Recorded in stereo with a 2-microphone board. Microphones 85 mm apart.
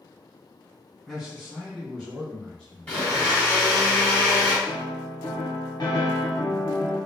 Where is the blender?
15° left (ahead or behind), 1.8 m.